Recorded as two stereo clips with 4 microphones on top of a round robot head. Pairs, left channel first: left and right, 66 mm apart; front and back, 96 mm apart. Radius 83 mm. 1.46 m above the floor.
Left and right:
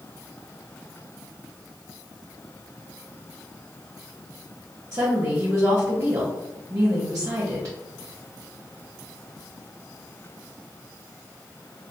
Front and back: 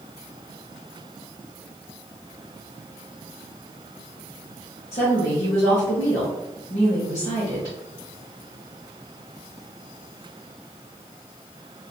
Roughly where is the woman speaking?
Ahead right.